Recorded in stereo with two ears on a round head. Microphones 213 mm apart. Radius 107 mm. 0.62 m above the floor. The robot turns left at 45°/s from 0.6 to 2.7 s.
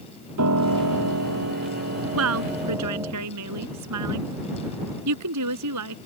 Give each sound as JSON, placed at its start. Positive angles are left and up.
{"t": 0.4, "sound": "a piano", "azimuth_deg": -75}
{"t": 2.1, "sound": "a woman speaking", "side_deg": -60}